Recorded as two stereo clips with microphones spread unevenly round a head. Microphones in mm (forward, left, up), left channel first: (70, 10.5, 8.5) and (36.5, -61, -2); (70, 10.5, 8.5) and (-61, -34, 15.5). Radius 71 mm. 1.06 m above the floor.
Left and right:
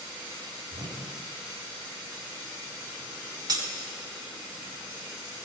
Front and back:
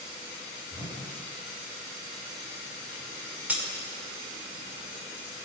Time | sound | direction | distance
0.7 | a whoosh | 95° right | 2.5 m
3.5 | breaking glass | 85° right | 1.5 m